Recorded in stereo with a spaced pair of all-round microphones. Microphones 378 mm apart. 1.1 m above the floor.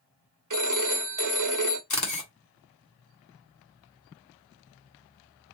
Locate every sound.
0.5 s a phone ringing: 50° right (ahead or behind), 0.7 m
1.9 s a camera shutter: 50° left (ahead or behind), 1.2 m